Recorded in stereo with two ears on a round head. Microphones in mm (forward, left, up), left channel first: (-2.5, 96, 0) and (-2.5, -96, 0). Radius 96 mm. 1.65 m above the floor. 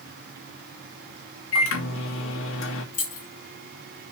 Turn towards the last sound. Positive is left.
turn(degrees=40)  # may be behind; listen again after turning